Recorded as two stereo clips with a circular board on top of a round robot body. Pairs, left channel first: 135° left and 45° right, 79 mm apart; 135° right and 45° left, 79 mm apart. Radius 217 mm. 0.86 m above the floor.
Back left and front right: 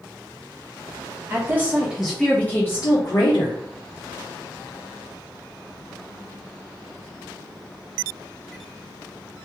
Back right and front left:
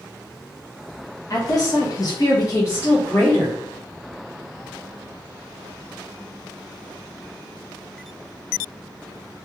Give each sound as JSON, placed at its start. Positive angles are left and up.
{"t": 1.3, "sound": "a woman speaking", "azimuth_deg": -100, "distance_m": 0.9}